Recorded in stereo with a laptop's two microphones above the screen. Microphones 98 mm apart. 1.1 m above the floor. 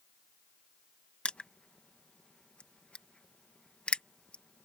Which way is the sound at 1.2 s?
10° left (ahead or behind).